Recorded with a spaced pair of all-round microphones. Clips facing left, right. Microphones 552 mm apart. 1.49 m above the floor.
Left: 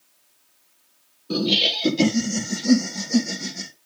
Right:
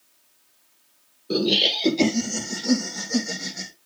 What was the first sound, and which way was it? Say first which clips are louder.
Laughter: right 1 dB; 20° left (ahead or behind).